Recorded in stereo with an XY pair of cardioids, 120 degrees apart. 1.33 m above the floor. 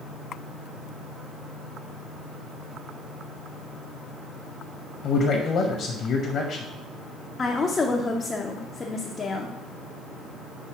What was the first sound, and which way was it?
A man speaking, 50° left.